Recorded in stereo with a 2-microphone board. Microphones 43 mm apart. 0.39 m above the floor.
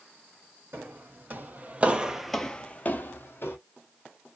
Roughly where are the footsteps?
Right.